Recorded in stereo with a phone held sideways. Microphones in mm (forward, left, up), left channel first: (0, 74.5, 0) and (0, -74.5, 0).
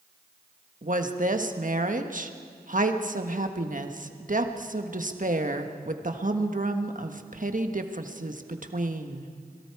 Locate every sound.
0.8 s a woman speaking: 55° right (ahead or behind), 1.4 m